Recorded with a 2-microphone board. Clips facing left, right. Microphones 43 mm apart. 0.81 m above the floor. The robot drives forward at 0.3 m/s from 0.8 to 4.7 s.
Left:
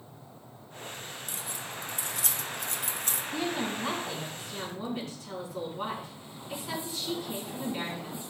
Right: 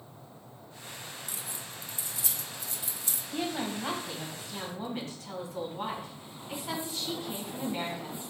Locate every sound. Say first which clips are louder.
1.3 s keys jangling: left 3 dB; 50° left (ahead or behind), 0.8 m
3.3 s a woman speaking: even; 40° right (ahead or behind), 4 m; by 8.2 s 35° right (ahead or behind), 4 m